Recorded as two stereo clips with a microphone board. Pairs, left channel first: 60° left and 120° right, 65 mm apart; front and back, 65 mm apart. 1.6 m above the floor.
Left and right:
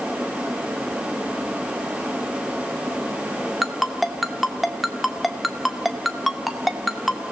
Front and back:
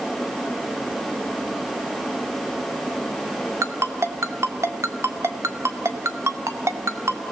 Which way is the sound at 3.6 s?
150° left.